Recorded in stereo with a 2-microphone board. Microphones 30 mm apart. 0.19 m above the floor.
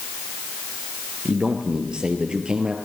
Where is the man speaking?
40° right (ahead or behind), 3.5 m.